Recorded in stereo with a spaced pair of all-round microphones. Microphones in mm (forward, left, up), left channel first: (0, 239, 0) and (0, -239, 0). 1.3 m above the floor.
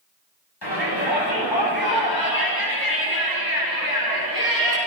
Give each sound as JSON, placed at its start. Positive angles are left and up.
{"t": 0.6, "sound": "a shout", "side_deg": 50, "distance_m": 9.5}